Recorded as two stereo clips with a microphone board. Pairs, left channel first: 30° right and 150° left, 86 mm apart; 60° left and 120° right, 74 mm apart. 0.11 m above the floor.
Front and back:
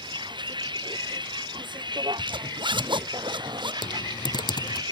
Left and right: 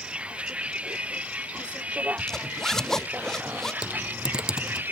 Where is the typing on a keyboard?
40° right.